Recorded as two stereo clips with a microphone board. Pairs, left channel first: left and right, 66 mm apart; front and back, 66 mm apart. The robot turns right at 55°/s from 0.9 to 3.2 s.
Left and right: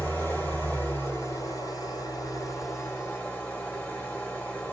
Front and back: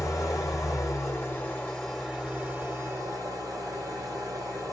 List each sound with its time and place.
0.0 s an engine running: 30° left, 1.2 m; by 4.7 s 155° left, 1.2 m